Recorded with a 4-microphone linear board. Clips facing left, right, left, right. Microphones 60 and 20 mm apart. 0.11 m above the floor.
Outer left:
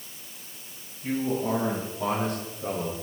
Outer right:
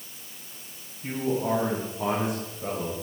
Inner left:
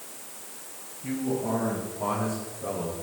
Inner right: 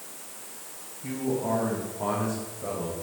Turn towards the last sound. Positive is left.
turn(degrees=-10)  # may be behind; listen again after turning